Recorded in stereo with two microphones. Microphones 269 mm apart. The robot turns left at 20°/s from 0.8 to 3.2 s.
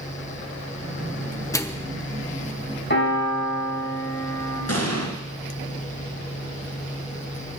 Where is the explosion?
70° left (ahead or behind), 2 m.